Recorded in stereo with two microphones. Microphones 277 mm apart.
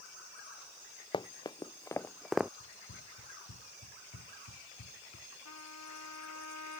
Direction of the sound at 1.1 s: 15° left (ahead or behind).